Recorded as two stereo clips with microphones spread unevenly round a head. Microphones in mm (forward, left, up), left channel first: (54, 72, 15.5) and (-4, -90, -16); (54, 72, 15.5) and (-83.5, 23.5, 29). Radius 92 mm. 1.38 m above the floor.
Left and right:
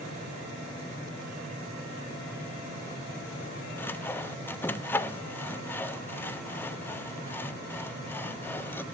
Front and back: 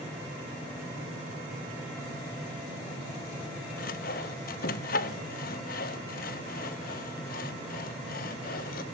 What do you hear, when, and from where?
3.8 s sawing: 5° left, 0.8 m